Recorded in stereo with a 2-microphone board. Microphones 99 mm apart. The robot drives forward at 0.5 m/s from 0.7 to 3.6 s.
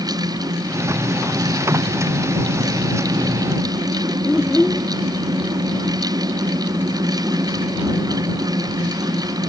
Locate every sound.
4.2 s a child speaking: 5° left (ahead or behind)